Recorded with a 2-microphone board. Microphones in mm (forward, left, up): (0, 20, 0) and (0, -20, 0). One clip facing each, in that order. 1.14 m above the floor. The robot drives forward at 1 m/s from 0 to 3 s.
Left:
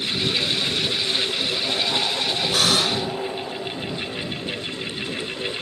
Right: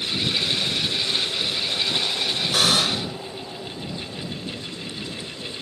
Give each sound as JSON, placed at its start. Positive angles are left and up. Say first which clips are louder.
{"t": 2.5, "sound": "a buzzer", "louder": "even", "side_deg": -5}